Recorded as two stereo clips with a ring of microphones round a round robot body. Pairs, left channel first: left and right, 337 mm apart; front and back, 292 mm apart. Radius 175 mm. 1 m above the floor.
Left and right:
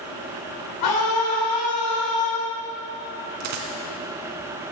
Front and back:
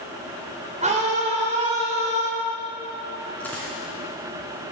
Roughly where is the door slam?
No door slam in this recording.